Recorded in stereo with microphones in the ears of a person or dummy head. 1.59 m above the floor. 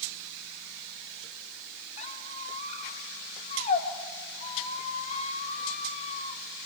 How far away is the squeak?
About 3 m.